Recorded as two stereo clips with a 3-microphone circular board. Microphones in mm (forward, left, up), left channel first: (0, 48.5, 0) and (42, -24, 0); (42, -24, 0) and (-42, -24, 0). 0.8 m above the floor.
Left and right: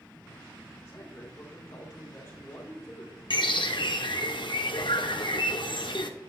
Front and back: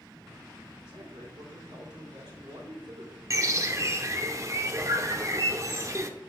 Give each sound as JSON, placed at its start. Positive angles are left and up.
{"t": 0.8, "sound": "a man speaking", "azimuth_deg": -175, "distance_m": 3.5}
{"t": 3.3, "sound": "a bird", "azimuth_deg": 130, "distance_m": 0.8}